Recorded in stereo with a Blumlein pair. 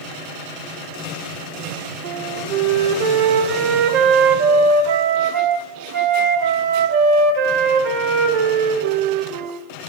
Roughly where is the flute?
Ahead right.